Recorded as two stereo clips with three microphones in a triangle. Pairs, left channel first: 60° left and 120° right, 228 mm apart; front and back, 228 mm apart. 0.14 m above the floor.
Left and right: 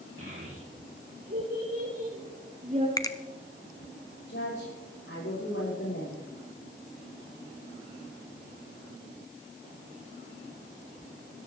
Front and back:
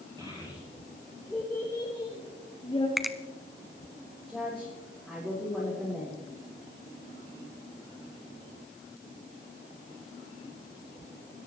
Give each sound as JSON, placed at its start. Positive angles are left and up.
{"t": 0.2, "sound": "a child speaking", "azimuth_deg": -110, "distance_m": 3.0}
{"t": 3.0, "sound": "a finger snap", "azimuth_deg": 90, "distance_m": 0.9}
{"t": 4.3, "sound": "a woman speaking", "azimuth_deg": 85, "distance_m": 7.0}